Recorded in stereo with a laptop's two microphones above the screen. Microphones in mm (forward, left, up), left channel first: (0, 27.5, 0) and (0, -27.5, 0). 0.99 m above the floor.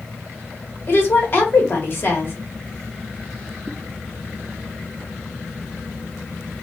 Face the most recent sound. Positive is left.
turn(degrees=45)  # may be behind; listen again after turning